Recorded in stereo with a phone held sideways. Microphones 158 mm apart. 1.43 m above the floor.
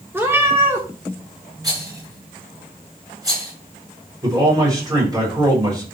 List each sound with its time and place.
0.1 s a cat meowing: 15° right (ahead or behind), 2.5 m
1.6 s a rattle: 25° right (ahead or behind), 6.5 m
4.2 s a man speaking: 25° right (ahead or behind), 5.5 m